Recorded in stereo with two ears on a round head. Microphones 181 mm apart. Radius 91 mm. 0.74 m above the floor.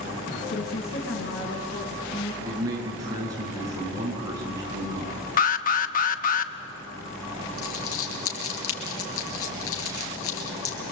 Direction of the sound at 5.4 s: 40° left (ahead or behind).